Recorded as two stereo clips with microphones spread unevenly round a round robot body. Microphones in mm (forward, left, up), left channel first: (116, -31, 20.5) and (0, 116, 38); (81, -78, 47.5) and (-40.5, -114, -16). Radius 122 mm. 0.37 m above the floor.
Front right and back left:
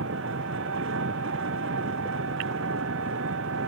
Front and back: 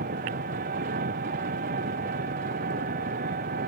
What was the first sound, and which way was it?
An engine running, 170° left.